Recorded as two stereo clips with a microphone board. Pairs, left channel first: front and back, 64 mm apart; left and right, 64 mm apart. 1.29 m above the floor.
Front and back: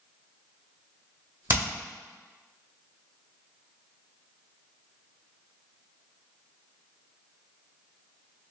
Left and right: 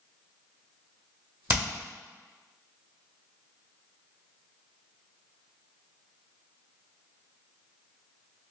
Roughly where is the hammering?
Behind right.